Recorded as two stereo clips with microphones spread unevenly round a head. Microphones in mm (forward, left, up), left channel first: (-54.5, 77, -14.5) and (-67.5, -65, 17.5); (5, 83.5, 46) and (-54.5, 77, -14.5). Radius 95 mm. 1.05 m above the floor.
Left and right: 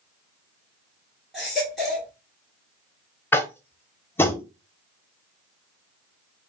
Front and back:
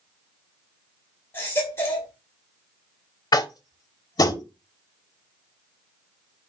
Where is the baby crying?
10° right, 1.3 m.